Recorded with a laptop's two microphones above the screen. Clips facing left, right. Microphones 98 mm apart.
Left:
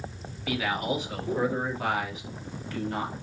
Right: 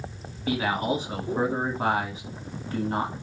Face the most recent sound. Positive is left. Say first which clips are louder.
# right 3 dB
turn(degrees=-30)  # may be behind; listen again after turning